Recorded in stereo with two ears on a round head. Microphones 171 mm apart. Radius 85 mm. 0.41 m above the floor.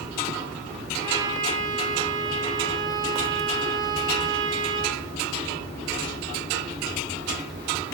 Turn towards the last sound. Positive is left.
turn(degrees=-25)  # may be behind; listen again after turning